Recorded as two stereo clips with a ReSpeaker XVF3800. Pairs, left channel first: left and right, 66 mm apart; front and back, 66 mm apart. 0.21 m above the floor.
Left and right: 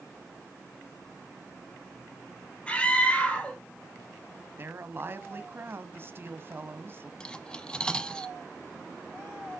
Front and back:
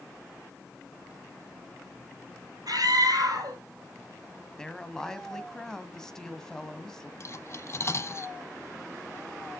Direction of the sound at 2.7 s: 160° left.